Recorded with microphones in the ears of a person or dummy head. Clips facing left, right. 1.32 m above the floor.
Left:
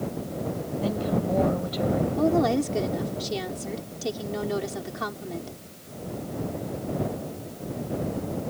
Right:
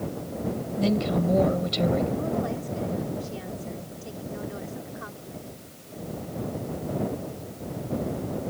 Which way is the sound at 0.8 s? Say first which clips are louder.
Right 3 dB; 35° right (ahead or behind).